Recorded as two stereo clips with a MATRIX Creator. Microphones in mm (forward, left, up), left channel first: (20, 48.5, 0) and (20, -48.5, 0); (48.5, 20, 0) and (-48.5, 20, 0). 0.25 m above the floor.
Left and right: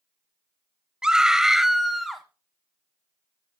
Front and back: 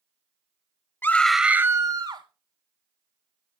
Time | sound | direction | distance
1.0 | a scream | 20° right | 1.0 m